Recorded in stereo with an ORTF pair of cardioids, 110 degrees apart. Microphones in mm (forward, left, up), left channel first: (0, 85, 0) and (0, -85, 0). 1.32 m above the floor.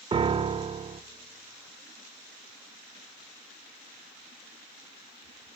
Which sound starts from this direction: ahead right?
A piano, at 0.1 s.